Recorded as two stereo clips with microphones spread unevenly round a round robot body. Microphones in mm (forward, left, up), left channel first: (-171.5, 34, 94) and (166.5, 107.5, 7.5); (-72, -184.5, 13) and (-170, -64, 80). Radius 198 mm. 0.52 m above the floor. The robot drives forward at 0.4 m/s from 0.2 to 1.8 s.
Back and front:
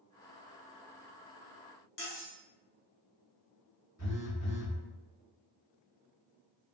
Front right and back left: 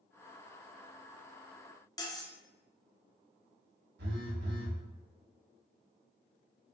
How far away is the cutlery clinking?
About 0.9 m.